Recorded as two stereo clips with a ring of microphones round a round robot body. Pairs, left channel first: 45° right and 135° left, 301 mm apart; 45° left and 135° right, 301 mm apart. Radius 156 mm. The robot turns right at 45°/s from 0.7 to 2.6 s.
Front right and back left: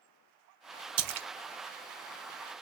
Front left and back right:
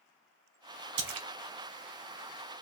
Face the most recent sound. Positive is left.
turn(degrees=-120)